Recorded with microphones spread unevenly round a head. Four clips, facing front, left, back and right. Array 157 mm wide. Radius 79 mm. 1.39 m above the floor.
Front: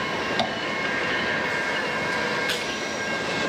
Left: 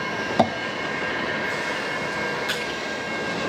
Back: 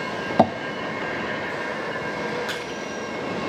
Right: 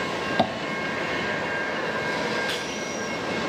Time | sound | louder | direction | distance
0.4 | tapping | left 4 dB, back 12 dB | 160° left | 0.5 m
2.5 | crushing | left 2 dB, front 1 dB | 175° left | 3 m